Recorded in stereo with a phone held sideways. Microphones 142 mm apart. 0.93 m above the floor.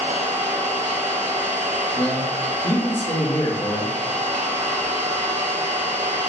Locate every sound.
0.0 s an engine running: 70° right (ahead or behind), 1.9 m
2.0 s a man speaking: 60° left (ahead or behind), 1.1 m